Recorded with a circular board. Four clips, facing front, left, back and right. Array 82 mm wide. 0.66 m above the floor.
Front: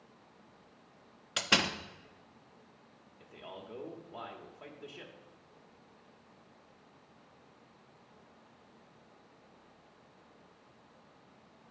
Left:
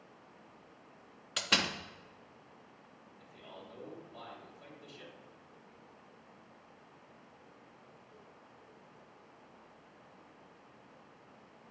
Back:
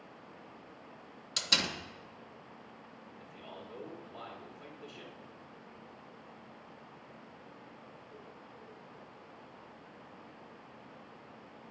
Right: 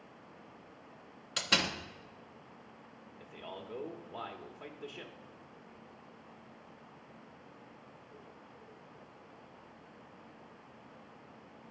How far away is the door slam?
About 0.7 m.